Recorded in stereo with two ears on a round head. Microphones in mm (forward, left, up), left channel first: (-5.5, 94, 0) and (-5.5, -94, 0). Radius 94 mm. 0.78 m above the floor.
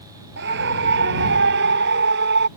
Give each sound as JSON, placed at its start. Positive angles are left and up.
{"t": 0.4, "sound": "a scream", "side_deg": -55}